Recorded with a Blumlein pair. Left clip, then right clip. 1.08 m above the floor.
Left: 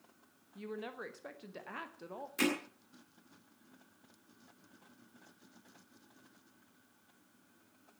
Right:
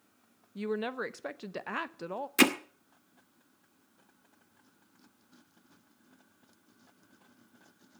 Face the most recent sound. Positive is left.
turn(degrees=-60)